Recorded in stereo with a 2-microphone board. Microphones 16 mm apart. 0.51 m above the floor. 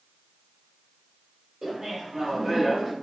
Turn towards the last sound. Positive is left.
turn(degrees=-25)  # may be behind; listen again after turning